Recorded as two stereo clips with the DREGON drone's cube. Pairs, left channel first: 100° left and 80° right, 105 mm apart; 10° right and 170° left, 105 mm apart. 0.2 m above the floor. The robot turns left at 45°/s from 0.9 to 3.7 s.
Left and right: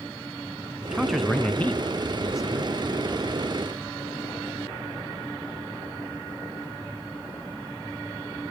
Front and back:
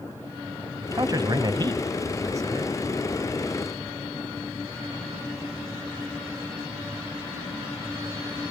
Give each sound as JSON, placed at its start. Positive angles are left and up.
{"t": 0.8, "sound": "a man speaking", "azimuth_deg": -160, "distance_m": 1.2}